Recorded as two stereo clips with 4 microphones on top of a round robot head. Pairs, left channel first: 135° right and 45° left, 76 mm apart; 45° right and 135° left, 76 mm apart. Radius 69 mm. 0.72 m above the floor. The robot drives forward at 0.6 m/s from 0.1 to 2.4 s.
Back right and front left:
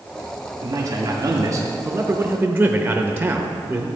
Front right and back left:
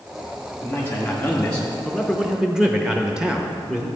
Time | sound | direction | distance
0.6 | a man speaking | 15° left | 1.4 m